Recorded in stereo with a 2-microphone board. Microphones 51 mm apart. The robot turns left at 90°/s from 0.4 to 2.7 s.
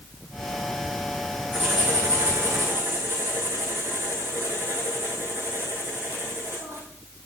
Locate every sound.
1.5 s writing: 35° right, 7 m; by 6.8 s 140° right, 7 m